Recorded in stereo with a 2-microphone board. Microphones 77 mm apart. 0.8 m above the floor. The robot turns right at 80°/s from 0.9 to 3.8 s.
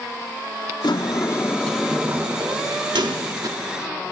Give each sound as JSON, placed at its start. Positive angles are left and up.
{"t": 0.8, "sound": "a sliding door", "azimuth_deg": 105, "distance_m": 0.9}